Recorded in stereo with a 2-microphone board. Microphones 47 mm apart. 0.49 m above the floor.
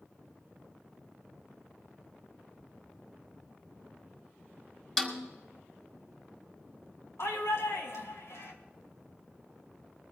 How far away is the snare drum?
About 2 m.